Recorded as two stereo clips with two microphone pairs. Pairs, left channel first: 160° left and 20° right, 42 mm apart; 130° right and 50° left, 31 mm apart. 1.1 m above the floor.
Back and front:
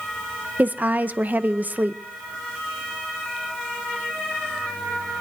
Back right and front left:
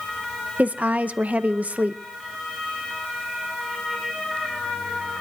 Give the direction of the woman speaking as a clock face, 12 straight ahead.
11 o'clock.